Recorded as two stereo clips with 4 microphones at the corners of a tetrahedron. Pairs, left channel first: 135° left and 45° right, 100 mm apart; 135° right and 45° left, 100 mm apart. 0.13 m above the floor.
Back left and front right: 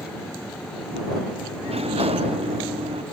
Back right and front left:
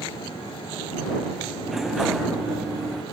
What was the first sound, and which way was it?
A sliding door, 45° right.